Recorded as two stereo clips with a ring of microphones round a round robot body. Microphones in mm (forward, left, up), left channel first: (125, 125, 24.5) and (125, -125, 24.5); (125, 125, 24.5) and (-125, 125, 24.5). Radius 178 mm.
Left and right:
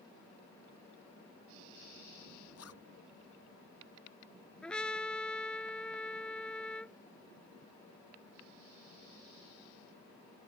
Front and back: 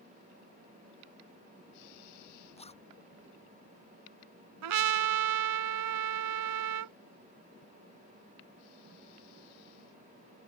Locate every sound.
2.6 s a zipper: 65° left
4.6 s a trumpet: 175° left